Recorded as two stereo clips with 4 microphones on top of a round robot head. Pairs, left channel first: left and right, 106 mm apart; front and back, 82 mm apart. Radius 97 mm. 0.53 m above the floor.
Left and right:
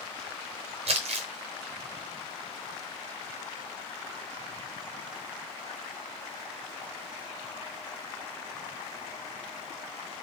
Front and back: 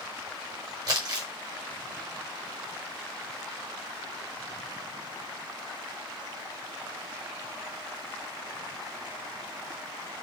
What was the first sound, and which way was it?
Crumpling, 125° right.